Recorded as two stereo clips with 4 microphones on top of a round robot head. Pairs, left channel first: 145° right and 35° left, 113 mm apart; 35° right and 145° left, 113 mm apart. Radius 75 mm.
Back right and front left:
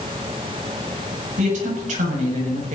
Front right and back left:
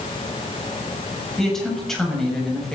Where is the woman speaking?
50° left, 7.5 m.